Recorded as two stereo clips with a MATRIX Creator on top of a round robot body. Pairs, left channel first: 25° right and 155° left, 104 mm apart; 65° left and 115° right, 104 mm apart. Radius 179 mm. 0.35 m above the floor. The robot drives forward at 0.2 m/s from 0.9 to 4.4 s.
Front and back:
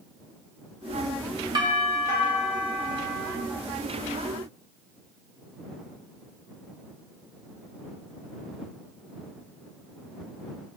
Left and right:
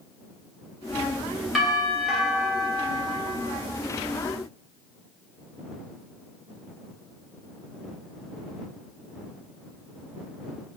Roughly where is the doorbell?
Behind.